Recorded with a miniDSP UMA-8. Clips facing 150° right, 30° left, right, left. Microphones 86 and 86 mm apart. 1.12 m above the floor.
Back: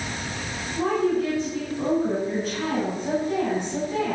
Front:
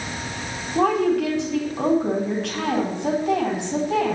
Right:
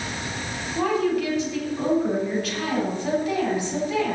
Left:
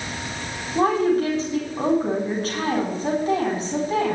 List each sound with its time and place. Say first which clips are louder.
0.8 s a woman speaking: front 4 dB, left 4 dB; 35° left, 4 m